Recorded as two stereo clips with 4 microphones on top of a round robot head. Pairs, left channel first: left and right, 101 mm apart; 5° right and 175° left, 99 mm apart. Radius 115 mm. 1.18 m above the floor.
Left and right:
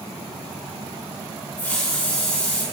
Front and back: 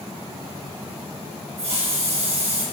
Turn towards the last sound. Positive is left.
turn(degrees=165)